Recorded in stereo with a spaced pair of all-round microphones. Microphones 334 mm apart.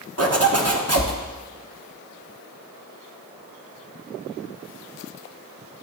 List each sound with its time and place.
0.2 s a zipper: 45° right (ahead or behind), 0.9 m